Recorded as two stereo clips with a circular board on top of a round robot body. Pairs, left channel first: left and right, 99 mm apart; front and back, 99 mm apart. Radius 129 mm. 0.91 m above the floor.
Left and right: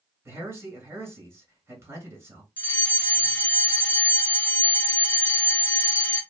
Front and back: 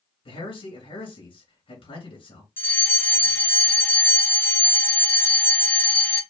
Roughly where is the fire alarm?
Ahead left.